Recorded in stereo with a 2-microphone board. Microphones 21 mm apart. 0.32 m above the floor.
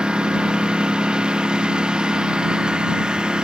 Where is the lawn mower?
40° right (ahead or behind); by 3.5 s 35° right (ahead or behind).